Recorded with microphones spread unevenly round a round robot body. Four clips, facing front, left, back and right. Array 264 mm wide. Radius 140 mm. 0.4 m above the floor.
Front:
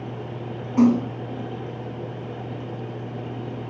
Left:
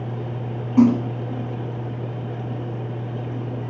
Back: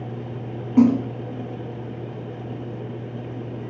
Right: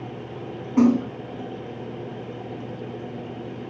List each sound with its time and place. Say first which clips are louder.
0.8 s a splash: left 2 dB, back 1 dB; 160° right, 2 m